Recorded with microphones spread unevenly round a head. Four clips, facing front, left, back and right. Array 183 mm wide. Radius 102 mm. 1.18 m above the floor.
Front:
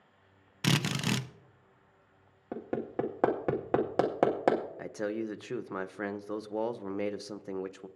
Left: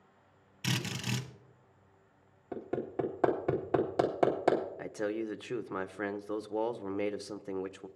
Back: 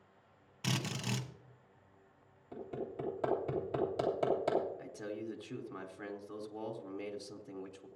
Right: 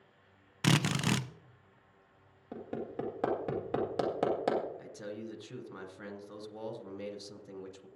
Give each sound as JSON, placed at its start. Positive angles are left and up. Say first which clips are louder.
{"t": 0.6, "sound": "a drill", "louder": "right 7 dB, front 8 dB", "azimuth_deg": -40, "distance_m": 0.6}
{"t": 2.5, "sound": "hammering", "louder": "left 4 dB, front 7 dB", "azimuth_deg": 5, "distance_m": 2.0}
{"t": 4.8, "sound": "a man speaking", "louder": "left 8 dB, front 8 dB", "azimuth_deg": 35, "distance_m": 0.9}